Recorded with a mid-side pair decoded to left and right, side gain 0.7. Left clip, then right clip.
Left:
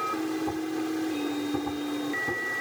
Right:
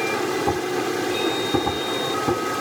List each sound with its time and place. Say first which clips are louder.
0.0 s a machine running: right 7 dB; 45° right